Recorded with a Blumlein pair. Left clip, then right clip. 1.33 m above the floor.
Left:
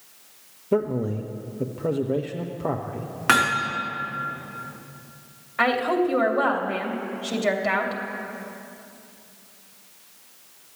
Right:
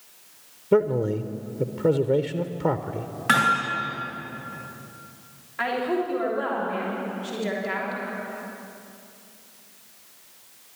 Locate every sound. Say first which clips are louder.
0.7 s a man speaking: right 3 dB; 5° right, 0.5 m
3.3 s hammering: even; 70° left, 4 m
5.6 s a woman speaking: left 4 dB; 45° left, 2.5 m